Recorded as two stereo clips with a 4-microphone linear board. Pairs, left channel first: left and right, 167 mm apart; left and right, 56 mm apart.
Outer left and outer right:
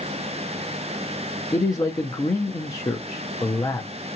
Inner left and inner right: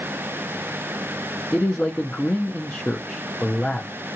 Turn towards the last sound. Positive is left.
turn(degrees=20)  # may be behind; listen again after turning